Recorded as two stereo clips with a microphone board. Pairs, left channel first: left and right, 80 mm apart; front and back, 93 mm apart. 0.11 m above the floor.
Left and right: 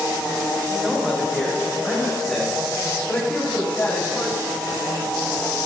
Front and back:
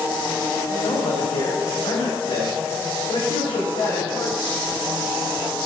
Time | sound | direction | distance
0.7 | a man speaking | 10° right | 6 m